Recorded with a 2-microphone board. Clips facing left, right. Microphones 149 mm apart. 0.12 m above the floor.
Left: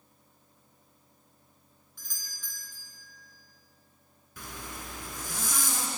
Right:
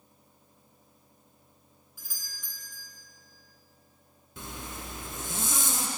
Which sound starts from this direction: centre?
A doorbell, at 2.0 s.